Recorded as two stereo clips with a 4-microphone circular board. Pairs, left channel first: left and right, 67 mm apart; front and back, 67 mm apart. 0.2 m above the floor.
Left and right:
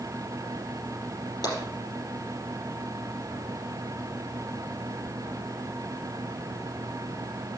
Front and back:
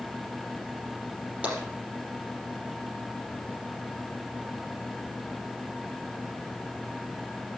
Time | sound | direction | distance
1.4 | tapping | 115° left | 4.5 m